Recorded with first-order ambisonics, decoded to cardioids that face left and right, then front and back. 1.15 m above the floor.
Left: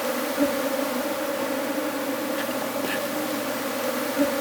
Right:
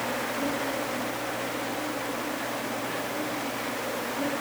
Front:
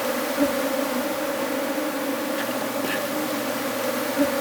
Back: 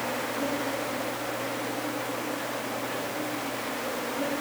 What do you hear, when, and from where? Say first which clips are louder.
0.0 s an insect: left 5 dB, front 6 dB; 45° left, 1.8 m